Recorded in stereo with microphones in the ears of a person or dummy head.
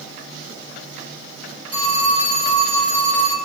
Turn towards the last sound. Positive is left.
turn(degrees=0)  # may be behind; listen again after turning